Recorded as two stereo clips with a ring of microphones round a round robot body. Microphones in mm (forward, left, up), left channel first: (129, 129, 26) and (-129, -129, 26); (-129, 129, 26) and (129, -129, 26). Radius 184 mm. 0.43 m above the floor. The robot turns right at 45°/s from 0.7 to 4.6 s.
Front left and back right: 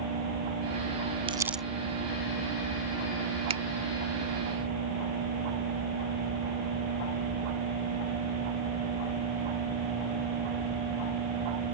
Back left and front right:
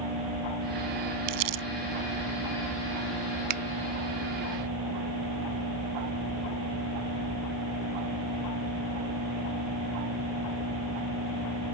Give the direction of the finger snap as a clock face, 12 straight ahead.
2 o'clock.